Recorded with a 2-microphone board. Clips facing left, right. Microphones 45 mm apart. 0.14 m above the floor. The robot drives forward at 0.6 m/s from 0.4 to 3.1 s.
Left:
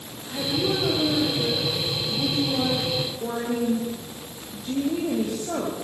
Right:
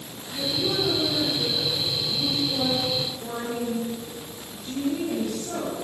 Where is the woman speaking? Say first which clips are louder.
Left 2 dB; 25° left (ahead or behind), 6.5 m; by 5.7 s 30° left (ahead or behind), 5 m.